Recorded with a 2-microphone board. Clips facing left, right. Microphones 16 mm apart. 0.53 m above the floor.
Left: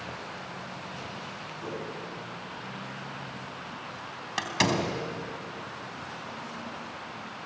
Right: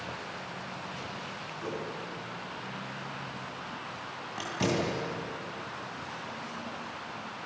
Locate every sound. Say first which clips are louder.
1.6 s a whoosh: even; 5° left (ahead or behind), 4.5 m
4.4 s a door slam: left 4 dB; 75° left (ahead or behind), 3.5 m